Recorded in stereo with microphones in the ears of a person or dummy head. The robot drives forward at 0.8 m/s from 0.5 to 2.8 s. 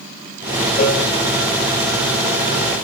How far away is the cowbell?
About 0.9 m.